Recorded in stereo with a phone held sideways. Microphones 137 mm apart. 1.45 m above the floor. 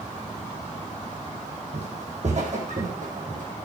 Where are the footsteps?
55° right (ahead or behind), 3.5 m; by 3.5 s 65° right (ahead or behind), 4.5 m.